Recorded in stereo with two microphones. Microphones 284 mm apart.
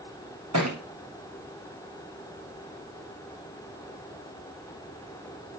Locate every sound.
0.5 s a thud: 65° right (ahead or behind), 4 m